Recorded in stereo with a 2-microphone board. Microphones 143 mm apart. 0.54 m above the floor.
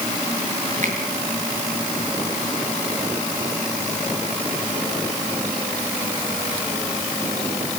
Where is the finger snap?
55° right (ahead or behind), 6 m.